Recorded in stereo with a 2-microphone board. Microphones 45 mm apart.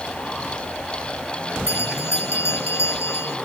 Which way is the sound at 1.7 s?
75° left (ahead or behind).